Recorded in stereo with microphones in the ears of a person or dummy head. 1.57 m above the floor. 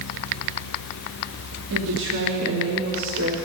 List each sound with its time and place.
1.7 s a woman speaking: 80° right, 2.5 m